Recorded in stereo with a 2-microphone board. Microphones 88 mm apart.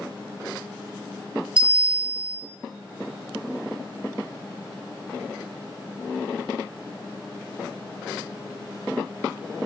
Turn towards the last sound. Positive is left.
turn(degrees=-15)  # may be behind; listen again after turning